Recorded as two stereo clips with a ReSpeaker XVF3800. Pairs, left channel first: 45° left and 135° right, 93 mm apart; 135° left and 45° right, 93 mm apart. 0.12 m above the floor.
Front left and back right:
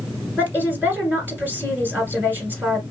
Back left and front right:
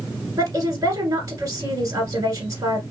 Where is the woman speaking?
75° right, 1.8 m.